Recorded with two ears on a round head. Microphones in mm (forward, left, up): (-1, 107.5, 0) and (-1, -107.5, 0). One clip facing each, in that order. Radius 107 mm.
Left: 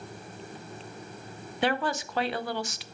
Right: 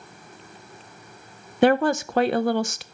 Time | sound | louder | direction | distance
1.6 | a woman speaking | right 10 dB | 40° right (ahead or behind) | 0.6 m